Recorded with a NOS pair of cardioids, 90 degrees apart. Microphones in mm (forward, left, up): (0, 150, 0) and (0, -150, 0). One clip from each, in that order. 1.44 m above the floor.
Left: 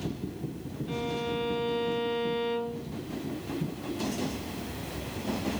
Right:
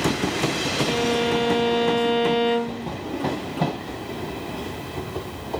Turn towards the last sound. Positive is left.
turn(degrees=-60)